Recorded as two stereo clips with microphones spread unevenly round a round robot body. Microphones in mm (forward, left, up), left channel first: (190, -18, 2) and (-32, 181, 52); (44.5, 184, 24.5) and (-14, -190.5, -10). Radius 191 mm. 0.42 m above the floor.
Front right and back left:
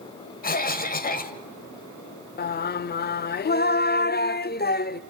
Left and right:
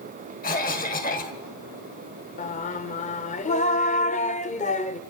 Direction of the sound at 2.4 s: 10° left.